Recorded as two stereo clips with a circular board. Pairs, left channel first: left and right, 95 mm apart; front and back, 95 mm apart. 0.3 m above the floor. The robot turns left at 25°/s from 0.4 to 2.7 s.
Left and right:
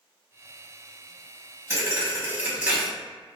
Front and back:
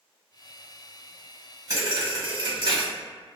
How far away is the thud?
About 1.0 m.